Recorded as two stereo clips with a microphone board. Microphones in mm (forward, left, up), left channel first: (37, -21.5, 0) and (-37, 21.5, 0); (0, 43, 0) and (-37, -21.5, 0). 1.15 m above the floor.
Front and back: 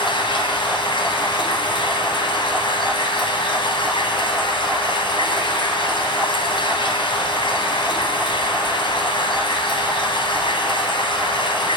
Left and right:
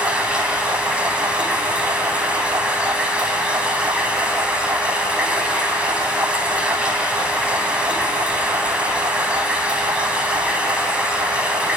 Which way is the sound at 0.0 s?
45° right.